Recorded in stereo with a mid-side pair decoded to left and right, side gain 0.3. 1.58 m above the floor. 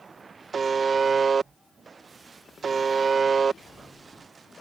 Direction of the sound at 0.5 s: 65° right.